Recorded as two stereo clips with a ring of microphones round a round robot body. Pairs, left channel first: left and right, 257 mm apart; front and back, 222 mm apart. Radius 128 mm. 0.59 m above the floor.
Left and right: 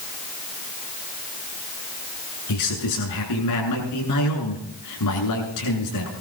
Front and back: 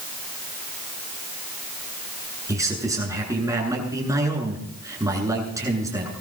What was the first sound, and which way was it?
A man speaking, 105° left.